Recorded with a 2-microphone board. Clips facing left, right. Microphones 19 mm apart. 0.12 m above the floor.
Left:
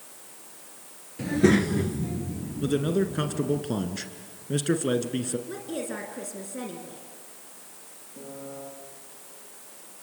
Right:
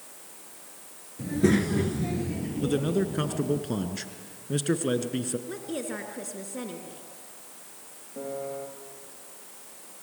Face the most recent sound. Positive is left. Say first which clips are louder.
# right 6 dB
turn(degrees=-75)  # may be behind; listen again after turning